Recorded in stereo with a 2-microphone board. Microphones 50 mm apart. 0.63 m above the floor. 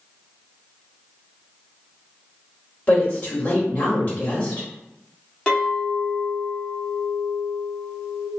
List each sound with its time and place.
2.9 s a woman speaking: 30° left (ahead or behind), 1.4 m
5.5 s a clink: 15° left (ahead or behind), 0.9 m